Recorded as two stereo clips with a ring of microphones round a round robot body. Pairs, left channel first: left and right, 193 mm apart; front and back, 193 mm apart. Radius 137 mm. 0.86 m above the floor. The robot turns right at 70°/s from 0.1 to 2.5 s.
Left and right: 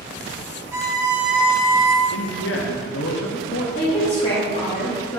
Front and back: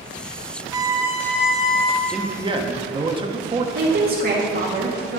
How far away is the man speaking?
About 1.1 m.